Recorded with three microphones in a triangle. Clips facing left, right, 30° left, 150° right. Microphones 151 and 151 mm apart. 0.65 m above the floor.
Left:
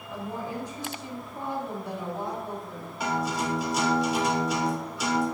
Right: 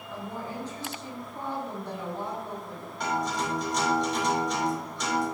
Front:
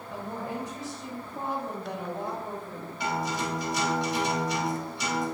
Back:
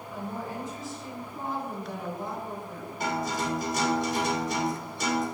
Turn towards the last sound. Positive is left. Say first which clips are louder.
# left 1 dB, back 1 dB
turn(degrees=175)